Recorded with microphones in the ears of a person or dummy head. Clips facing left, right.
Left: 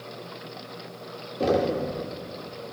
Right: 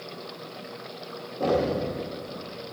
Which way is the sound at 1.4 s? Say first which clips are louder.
Left 1 dB; 30° left (ahead or behind).